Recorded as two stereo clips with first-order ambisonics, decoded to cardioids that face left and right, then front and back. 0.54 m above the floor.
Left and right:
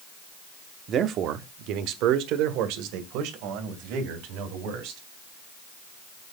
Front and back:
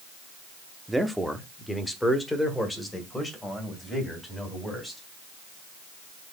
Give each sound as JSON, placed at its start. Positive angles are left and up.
{"t": 0.9, "sound": "a man speaking", "azimuth_deg": -100, "distance_m": 0.8}